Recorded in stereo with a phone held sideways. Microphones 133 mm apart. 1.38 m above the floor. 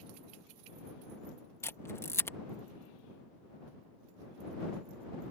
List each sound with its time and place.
1.6 s a camera shutter: 20° left (ahead or behind)